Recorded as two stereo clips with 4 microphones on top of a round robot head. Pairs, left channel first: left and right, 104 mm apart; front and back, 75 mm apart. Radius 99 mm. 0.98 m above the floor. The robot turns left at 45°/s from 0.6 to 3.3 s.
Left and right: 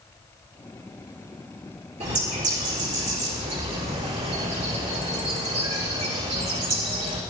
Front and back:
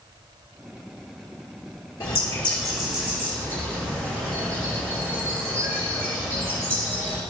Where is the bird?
60° right, 4 m; by 7.2 s 115° right, 4 m.